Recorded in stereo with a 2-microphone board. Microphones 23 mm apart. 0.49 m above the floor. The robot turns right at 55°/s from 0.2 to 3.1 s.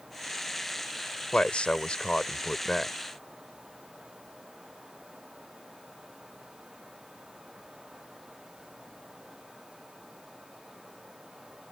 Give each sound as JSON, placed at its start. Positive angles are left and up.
{"t": 1.3, "sound": "a man speaking", "azimuth_deg": 85}